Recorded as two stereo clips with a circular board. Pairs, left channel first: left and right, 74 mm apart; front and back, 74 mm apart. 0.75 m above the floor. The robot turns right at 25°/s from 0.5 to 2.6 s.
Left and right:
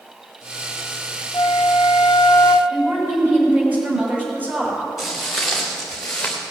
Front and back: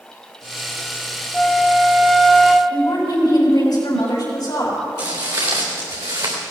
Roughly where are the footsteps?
Behind.